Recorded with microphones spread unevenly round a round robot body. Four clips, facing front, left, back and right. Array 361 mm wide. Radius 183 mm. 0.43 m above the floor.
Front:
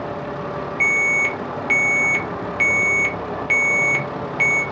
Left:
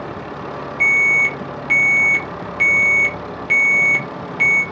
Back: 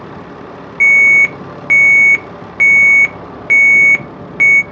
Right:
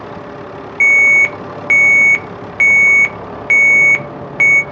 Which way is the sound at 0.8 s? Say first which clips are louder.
Right 6 dB, back 11 dB; 170° left.